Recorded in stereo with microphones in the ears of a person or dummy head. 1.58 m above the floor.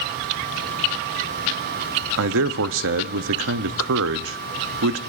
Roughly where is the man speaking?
Right.